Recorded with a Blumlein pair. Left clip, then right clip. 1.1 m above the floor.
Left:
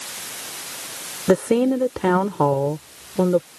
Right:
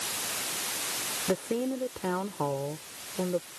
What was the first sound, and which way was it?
A woman speaking, 60° left.